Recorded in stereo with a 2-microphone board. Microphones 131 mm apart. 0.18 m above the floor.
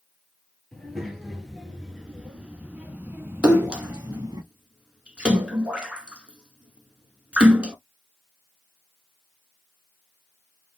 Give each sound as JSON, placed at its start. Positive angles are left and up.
{"t": 0.7, "sound": "a child speaking", "side_deg": 0, "distance_m": 2.5}
{"t": 3.4, "sound": "a splash", "side_deg": -5, "distance_m": 1.4}